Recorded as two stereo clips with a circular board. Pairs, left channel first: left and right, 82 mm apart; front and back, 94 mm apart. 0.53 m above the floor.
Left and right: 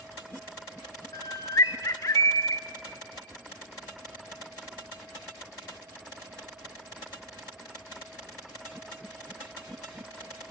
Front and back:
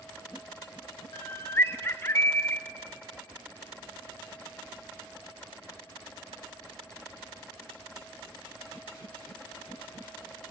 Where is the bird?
55° left, 0.6 m.